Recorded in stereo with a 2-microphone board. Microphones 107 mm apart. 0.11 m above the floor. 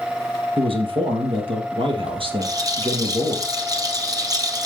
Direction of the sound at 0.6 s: 55° right (ahead or behind).